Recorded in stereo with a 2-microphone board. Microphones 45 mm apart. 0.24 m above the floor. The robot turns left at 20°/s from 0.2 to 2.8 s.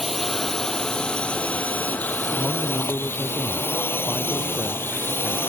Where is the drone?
Straight behind; by 5.5 s 125° left.